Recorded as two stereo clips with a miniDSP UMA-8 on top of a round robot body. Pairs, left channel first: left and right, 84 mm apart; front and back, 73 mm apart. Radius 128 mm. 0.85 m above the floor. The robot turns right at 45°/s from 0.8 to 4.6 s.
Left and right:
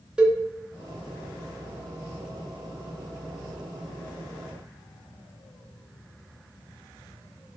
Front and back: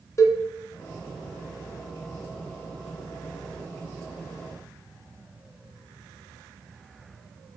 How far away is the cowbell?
About 0.9 m.